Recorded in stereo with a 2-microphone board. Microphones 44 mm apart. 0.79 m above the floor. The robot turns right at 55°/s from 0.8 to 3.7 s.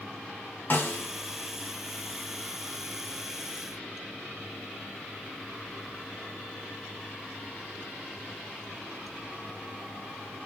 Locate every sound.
0.7 s a snare drum: 45° left (ahead or behind), 0.8 m; by 1.1 s 60° left (ahead or behind), 0.8 m